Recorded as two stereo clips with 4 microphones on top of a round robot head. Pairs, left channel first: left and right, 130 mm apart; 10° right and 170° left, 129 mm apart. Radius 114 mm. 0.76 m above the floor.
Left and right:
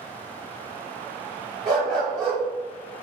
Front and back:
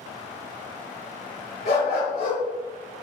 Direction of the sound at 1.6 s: 35° right.